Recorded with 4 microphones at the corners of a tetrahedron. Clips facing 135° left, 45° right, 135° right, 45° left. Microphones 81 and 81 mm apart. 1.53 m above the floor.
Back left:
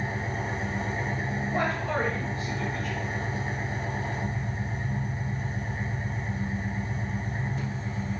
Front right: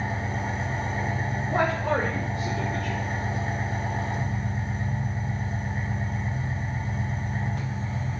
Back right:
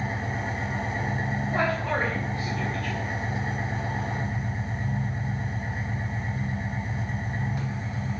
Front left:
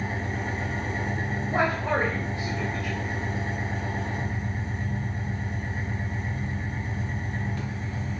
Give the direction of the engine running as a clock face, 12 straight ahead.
2 o'clock.